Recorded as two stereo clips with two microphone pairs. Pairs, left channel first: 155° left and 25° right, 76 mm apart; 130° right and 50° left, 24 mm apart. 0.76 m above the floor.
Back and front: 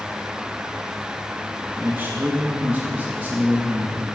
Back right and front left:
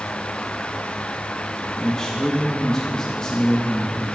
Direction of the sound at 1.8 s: 75° right.